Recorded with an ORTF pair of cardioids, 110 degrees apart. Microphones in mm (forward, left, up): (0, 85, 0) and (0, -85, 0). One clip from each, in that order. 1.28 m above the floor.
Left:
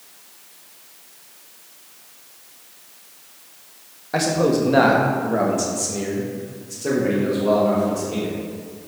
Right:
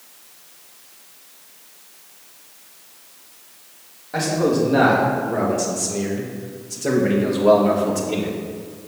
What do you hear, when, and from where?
4.1 s a man speaking: 30° left, 2 m; by 8.4 s 45° right, 2 m